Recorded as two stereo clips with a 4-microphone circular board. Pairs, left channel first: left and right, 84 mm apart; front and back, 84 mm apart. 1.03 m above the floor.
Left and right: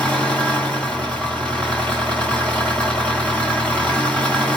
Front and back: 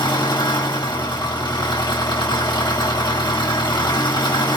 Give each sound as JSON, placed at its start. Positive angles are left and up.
{"t": 0.0, "sound": "an engine running", "azimuth_deg": 15, "distance_m": 1.7}